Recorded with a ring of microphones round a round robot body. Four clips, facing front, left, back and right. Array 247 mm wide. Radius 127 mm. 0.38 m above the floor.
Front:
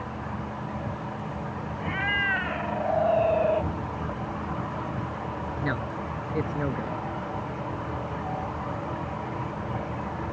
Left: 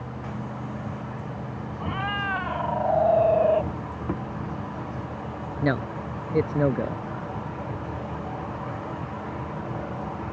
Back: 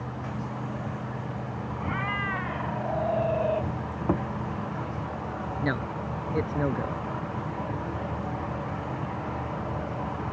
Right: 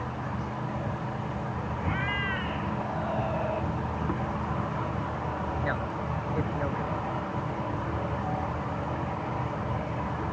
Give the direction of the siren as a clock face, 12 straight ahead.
No siren in this recording.